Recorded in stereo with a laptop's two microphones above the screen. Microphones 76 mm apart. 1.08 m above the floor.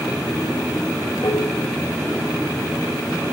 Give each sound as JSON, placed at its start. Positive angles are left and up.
{"t": 1.2, "sound": "dishes clattering", "side_deg": 75, "distance_m": 2.0}